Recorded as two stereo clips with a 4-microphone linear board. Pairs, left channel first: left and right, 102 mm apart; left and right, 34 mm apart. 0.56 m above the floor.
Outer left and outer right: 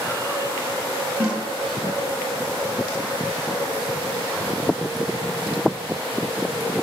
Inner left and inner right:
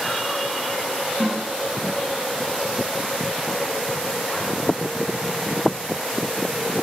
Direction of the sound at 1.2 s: 10° right (ahead or behind).